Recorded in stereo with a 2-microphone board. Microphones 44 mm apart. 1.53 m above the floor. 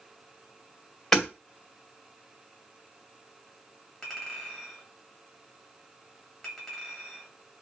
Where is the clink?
15° left (ahead or behind), 2.0 m.